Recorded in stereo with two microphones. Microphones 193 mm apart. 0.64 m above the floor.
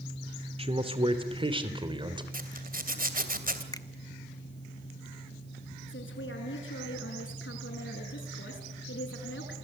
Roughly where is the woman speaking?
Left.